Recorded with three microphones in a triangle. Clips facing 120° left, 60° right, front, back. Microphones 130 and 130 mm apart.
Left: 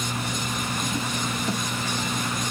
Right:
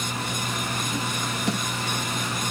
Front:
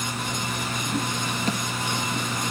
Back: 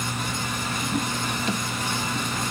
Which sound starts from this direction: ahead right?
A snare drum, at 1.5 s.